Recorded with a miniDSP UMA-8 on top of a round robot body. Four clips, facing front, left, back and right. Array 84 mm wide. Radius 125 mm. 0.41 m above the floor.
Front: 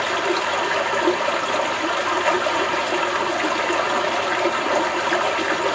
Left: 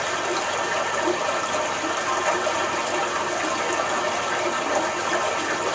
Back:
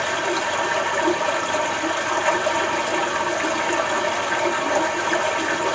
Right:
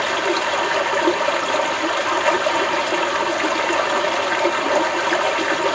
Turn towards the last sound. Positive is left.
turn(degrees=-65)